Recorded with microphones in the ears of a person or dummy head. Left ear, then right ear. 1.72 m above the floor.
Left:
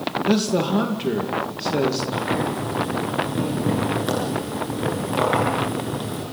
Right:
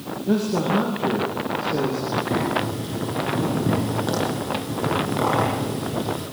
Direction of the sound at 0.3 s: 50° left (ahead or behind).